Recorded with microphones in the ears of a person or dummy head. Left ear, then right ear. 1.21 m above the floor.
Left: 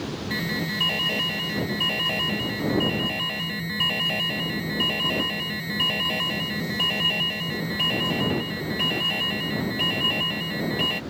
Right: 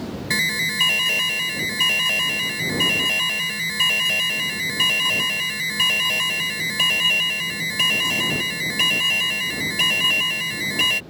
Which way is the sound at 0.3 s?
70° right (ahead or behind).